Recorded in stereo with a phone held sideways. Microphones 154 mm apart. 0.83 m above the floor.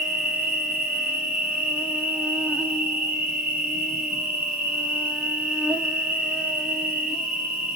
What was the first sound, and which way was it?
An insect, 10° right (ahead or behind).